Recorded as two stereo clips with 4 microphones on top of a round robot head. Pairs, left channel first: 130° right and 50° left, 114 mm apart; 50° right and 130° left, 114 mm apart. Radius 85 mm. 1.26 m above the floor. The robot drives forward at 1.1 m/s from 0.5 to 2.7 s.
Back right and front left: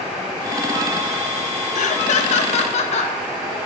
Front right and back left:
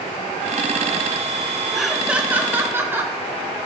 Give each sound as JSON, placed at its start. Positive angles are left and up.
{"t": 1.8, "sound": "laughter", "azimuth_deg": -140, "distance_m": 1.1}